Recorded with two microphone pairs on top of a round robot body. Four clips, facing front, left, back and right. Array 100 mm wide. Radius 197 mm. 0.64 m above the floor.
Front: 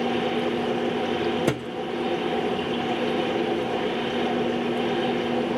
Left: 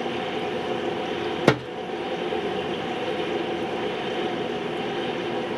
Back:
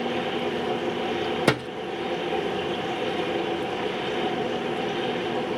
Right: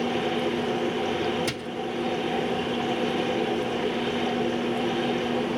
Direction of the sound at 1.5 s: 105° left.